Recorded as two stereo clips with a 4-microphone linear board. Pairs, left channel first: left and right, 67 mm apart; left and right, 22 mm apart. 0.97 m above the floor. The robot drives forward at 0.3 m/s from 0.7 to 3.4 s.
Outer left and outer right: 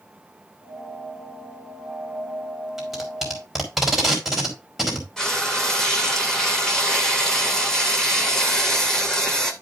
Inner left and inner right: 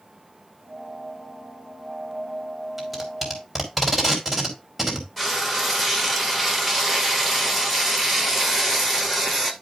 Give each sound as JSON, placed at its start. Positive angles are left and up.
{"t": 2.8, "sound": "tape being pulled", "side_deg": 0, "distance_m": 4.0}
{"t": 5.2, "sound": "frying", "side_deg": 10, "distance_m": 2.5}